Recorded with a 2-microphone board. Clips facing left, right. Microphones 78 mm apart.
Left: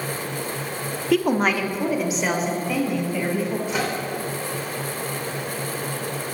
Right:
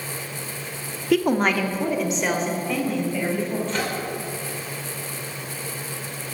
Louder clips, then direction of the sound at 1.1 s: Even; centre (ahead or behind).